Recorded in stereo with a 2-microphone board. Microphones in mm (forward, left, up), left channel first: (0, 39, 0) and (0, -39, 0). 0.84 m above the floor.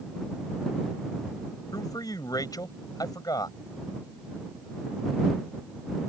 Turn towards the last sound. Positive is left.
turn(degrees=55)  # may be behind; listen again after turning